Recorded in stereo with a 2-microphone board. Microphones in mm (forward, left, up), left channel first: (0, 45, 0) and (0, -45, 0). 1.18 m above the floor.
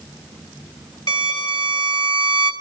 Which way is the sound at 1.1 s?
55° left (ahead or behind).